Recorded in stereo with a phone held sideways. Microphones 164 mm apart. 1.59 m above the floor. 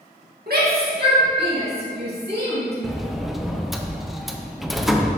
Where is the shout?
65° right (ahead or behind), 2 m; by 2.7 s 80° right, 3 m.